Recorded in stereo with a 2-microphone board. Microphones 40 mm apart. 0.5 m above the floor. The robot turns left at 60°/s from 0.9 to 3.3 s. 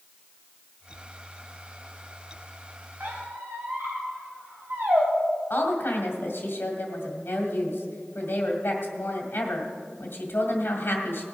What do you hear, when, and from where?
3.0 s a squeak: 50° right (ahead or behind), 3 m; by 5.1 s 65° right (ahead or behind), 3 m
5.5 s a woman speaking: 50° left (ahead or behind), 1.9 m